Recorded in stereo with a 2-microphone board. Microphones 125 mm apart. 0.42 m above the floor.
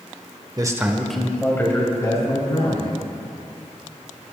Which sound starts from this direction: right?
A man speaking, at 0.6 s.